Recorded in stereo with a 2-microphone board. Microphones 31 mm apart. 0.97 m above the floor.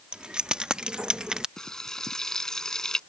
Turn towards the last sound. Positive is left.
turn(degrees=20)  # may be behind; listen again after turning